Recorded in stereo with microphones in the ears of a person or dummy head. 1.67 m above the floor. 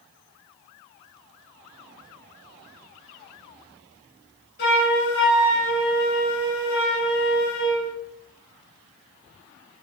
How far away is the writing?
I don't hear writing.